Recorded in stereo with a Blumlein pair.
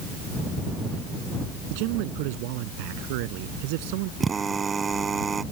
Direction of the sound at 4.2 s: 15° right.